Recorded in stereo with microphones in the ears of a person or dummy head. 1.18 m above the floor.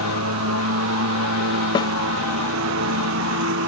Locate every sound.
0.0 s a lawn mower: 75° right (ahead or behind); by 3.7 s 70° right (ahead or behind)
1.8 s a snare drum: 20° left (ahead or behind)